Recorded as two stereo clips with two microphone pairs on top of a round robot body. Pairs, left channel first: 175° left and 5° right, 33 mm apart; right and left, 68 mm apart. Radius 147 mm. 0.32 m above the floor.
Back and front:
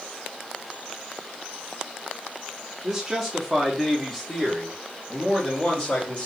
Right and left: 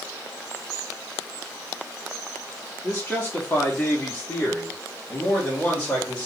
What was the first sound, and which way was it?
A man speaking, 80° right.